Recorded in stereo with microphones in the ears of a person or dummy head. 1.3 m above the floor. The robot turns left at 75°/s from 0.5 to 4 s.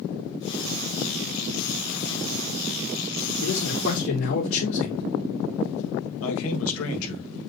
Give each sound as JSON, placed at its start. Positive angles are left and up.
{"t": 3.4, "sound": "a man speaking", "azimuth_deg": 115, "distance_m": 4.5}
{"t": 6.2, "sound": "a man speaking", "side_deg": 75, "distance_m": 2.0}